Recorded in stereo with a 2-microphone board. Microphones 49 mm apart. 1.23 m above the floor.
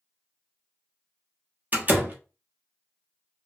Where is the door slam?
35° right (ahead or behind), 0.7 m.